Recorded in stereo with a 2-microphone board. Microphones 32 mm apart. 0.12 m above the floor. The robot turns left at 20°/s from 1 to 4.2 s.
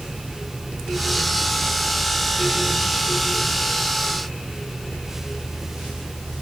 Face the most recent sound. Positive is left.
No sound to turn to.